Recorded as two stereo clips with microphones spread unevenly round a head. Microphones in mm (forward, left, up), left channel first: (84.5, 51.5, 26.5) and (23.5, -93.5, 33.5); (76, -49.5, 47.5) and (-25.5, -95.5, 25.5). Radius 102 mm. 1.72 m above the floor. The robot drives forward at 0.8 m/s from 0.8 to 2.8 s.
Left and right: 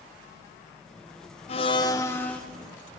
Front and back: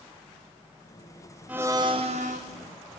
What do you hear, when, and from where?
1.5 s a blender: 115° left, 0.8 m; by 2.4 s 150° left, 1.2 m